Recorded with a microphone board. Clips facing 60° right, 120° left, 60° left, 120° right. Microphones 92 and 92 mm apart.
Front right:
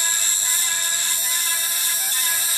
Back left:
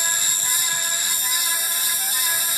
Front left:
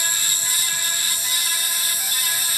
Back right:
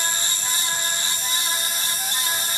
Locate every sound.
0.0 s an insect: 140° left, 1.4 m